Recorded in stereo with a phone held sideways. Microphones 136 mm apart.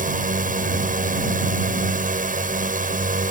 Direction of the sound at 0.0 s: 75° right (ahead or behind).